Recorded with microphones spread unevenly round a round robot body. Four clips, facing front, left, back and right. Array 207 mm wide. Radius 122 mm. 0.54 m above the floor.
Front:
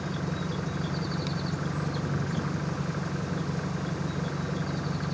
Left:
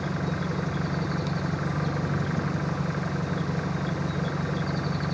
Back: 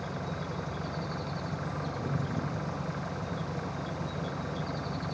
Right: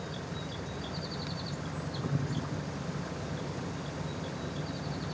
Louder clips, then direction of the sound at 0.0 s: Left 10 dB, front 4 dB; 70° left.